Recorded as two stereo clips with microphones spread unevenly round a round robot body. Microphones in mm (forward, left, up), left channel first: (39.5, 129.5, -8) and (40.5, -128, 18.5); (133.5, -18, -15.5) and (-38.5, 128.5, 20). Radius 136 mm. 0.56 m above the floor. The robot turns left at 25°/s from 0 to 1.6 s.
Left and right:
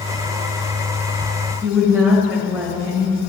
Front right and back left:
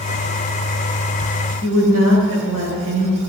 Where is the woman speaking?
175° right, 2 m.